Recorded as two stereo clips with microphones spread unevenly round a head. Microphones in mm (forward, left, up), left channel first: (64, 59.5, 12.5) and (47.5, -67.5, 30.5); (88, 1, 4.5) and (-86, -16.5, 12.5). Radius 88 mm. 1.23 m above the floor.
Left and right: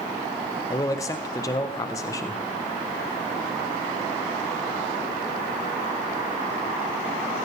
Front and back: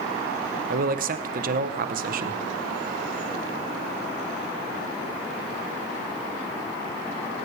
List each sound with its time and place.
0.7 s a man speaking: 145° left, 1.0 m